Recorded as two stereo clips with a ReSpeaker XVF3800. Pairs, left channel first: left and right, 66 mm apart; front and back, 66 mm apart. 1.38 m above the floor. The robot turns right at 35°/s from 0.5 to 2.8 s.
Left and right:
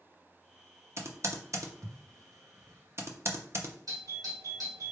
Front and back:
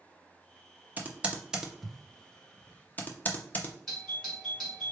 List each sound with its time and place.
1.0 s typing on a keyboard: 120° right, 0.7 m; by 3.8 s 60° right, 0.7 m
3.9 s a doorbell: 85° right, 2 m